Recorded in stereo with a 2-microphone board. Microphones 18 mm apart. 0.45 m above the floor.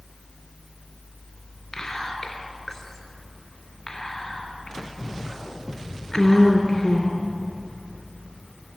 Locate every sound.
1.7 s whispering: 20° left (ahead or behind), 4 m